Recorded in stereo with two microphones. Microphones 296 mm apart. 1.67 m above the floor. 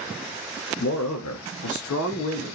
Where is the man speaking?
55° left (ahead or behind), 0.6 m; by 2.5 s 50° left (ahead or behind), 0.8 m.